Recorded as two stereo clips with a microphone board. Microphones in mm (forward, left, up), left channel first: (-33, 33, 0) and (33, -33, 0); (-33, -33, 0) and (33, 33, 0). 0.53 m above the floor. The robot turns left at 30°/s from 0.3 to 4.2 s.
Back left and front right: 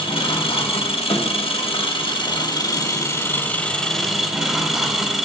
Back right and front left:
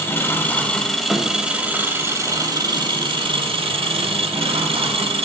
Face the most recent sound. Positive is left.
turn(degrees=40)